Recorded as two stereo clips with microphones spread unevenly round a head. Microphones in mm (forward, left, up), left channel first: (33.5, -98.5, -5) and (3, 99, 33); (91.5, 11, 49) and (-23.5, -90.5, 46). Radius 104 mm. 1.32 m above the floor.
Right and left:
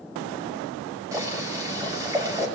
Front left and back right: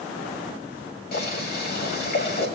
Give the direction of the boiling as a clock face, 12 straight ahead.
11 o'clock.